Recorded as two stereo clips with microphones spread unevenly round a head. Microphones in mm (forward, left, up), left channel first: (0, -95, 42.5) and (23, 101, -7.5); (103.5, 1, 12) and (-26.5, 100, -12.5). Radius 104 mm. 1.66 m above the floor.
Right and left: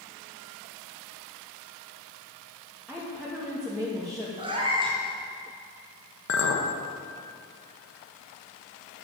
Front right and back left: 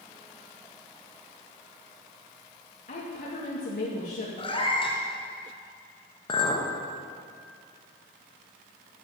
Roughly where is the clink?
Right.